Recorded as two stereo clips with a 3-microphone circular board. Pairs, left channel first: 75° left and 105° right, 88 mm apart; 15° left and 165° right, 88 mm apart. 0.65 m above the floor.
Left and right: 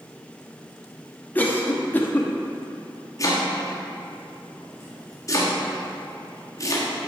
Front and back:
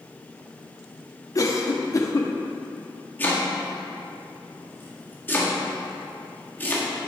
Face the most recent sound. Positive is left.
turn(degrees=70)